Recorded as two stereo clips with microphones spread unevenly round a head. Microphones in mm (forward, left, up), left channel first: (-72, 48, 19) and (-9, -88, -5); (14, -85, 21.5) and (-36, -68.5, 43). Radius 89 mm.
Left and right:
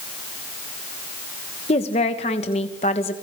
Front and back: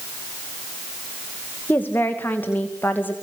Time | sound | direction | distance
1.7 | a woman speaking | 55° left | 2 m